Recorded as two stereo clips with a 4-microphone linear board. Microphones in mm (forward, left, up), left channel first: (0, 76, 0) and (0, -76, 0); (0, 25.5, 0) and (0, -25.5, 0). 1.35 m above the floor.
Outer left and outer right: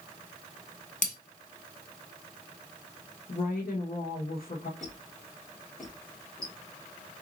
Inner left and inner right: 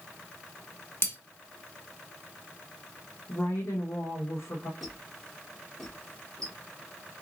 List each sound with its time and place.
1.0 s breaking glass: 55° left (ahead or behind), 1.4 m
3.3 s a woman speaking: 70° left (ahead or behind), 1.2 m
4.8 s a squeak: 5° left (ahead or behind), 2.5 m